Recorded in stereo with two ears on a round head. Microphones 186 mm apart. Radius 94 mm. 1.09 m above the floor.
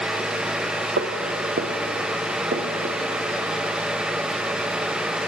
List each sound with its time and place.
1.0 s footsteps: 50° right (ahead or behind), 2.0 m; by 3.0 s 35° right (ahead or behind), 3 m